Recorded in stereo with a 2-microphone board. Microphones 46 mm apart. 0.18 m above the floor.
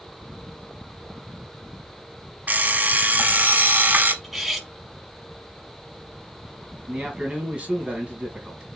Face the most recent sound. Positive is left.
turn(degrees=-30)  # may be behind; listen again after turning